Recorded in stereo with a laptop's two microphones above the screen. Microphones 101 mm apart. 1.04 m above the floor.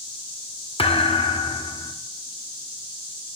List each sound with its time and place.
0.8 s a thud: 65° left (ahead or behind), 0.8 m